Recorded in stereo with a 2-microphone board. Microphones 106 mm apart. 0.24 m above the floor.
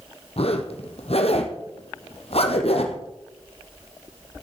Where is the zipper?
70° left (ahead or behind), 1.4 m.